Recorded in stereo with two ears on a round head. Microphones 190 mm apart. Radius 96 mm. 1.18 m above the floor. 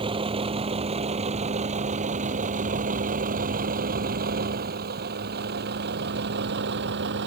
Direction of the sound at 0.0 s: 25° right (ahead or behind).